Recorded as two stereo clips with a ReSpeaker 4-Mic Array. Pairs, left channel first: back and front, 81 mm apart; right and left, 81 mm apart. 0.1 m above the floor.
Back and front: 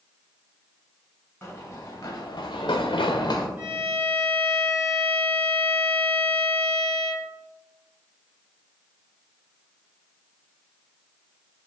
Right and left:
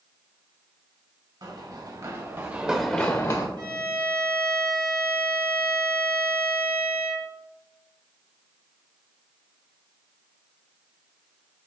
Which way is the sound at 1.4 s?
120° left.